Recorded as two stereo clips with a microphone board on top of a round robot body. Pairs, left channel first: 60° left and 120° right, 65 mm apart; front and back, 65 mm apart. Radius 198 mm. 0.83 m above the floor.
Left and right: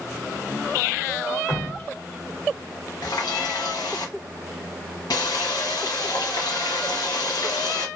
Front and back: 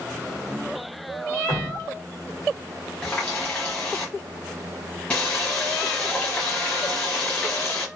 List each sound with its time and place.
1.5 s dripping: 5° left, 1.8 m
3.0 s a running tap: 75° left, 1.1 m